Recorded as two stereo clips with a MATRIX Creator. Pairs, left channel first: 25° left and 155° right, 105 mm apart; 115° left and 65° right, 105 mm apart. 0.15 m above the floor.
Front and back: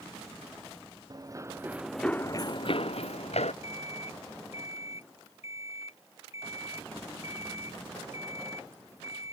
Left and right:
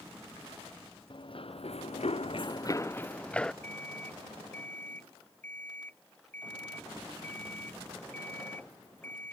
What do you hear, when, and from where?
1.1 s running footsteps: 150° left; by 3.5 s 30° left
3.6 s an alarm clock: 40° left